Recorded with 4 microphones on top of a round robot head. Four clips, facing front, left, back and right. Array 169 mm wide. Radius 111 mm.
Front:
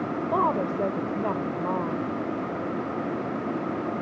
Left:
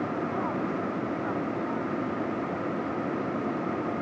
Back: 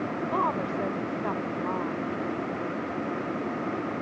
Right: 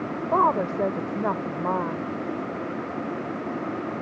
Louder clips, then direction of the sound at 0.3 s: Right 8 dB, front 4 dB; 60° right.